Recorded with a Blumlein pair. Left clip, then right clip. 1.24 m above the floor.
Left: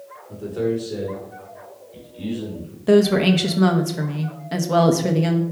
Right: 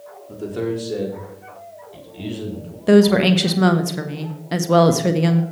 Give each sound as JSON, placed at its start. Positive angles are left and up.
{"t": 0.3, "sound": "a man speaking", "azimuth_deg": -30, "distance_m": 3.5}
{"t": 2.9, "sound": "a woman speaking", "azimuth_deg": -10, "distance_m": 1.3}